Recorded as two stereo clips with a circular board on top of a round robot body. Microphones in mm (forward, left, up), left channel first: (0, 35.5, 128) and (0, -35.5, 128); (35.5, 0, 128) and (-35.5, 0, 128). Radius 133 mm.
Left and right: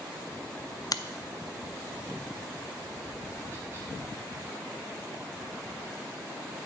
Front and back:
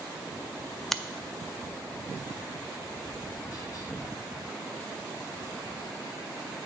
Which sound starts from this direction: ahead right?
Tapping, at 2.7 s.